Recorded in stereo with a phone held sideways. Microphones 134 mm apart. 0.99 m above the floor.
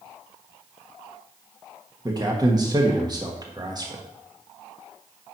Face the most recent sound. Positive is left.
turn(degrees=-30)  # may be behind; listen again after turning